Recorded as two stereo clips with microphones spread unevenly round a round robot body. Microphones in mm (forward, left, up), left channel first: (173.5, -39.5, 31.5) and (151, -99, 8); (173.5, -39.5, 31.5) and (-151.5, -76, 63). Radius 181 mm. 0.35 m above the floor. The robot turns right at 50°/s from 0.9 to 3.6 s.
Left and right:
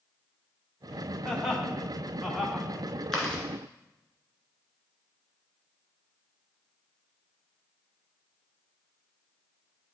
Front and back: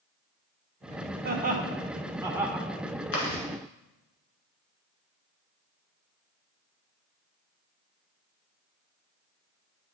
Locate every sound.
1.2 s laughter: 145° right, 1.3 m; by 2.7 s 75° right, 1.3 m
3.1 s chewing: 15° right, 2.5 m; by 3.5 s straight ahead, 2.5 m